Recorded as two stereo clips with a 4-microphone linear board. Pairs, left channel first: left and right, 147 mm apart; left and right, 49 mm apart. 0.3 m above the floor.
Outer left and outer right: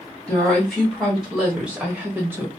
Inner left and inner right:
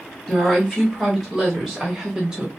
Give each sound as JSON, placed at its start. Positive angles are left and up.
{"t": 0.3, "sound": "a woman speaking", "side_deg": 5, "distance_m": 1.3}